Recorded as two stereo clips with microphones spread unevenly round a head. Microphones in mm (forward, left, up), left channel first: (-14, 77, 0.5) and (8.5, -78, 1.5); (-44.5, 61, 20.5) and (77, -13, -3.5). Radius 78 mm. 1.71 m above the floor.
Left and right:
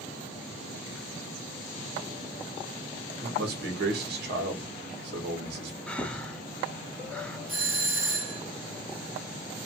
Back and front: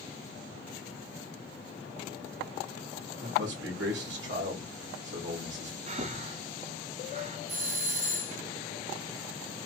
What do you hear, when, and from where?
3.2 s a man speaking: 55° right, 2 m
5.9 s breathing: 15° left, 0.7 m
7.5 s a doorbell: 5° right, 2.5 m